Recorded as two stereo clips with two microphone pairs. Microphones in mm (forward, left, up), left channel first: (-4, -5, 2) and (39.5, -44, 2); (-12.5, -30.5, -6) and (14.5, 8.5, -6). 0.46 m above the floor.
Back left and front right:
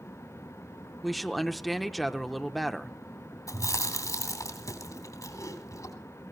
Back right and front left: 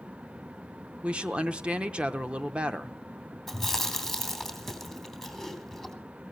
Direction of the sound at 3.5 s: 145° left.